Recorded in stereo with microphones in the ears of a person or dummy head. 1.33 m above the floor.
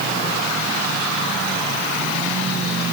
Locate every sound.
Only background noise.